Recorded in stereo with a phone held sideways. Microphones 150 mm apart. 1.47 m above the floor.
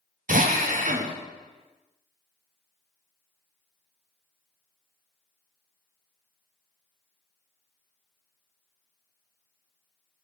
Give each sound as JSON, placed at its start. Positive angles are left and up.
{"t": 0.3, "sound": "a drill", "side_deg": -60, "distance_m": 0.6}